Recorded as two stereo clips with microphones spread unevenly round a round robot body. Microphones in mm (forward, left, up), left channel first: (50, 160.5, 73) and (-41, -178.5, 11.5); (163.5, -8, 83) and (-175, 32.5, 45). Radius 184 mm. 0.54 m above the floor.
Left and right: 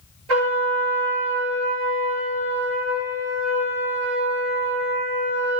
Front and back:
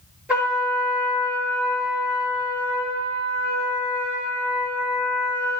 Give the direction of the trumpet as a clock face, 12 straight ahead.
3 o'clock.